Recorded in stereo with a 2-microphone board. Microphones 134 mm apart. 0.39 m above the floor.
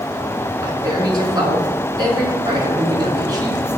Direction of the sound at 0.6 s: 30° right (ahead or behind).